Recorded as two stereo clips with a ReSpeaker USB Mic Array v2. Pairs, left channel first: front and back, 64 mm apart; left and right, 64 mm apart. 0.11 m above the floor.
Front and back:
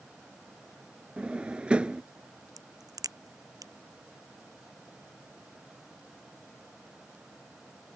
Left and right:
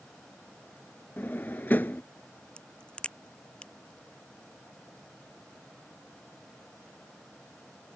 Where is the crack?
165° left.